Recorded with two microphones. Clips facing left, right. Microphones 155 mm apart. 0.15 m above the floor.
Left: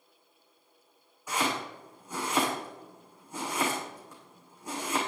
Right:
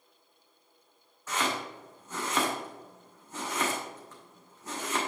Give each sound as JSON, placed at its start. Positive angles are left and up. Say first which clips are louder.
{"t": 1.3, "sound": "chopping", "louder": "left 1 dB", "side_deg": 10, "distance_m": 4.5}